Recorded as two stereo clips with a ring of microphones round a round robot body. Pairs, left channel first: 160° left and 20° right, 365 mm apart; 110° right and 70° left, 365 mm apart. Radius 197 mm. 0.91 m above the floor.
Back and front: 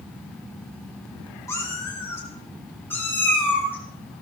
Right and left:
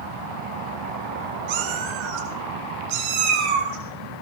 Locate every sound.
1.5 s a cat meowing: 75° left, 2.5 m